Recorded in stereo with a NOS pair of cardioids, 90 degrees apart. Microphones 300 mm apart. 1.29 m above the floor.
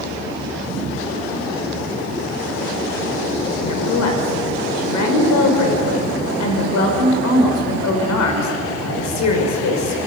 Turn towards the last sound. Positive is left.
turn(degrees=70)